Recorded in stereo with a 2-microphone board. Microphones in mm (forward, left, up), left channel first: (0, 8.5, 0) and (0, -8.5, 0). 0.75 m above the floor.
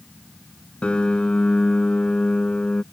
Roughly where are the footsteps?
No footsteps in this recording.